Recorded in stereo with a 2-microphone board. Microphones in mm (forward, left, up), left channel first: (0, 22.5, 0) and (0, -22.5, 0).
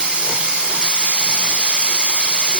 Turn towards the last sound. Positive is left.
turn(degrees=-20)  # may be behind; listen again after turning